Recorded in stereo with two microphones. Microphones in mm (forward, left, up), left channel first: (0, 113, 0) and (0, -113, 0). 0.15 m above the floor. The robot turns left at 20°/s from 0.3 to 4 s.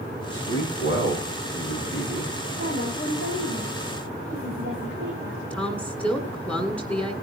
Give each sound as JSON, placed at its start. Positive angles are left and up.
{"t": 0.3, "sound": "a man speaking", "azimuth_deg": 85, "distance_m": 7.5}
{"t": 2.6, "sound": "a woman speaking", "side_deg": 80, "distance_m": 9.5}
{"t": 5.5, "sound": "a woman speaking", "side_deg": 5, "distance_m": 1.7}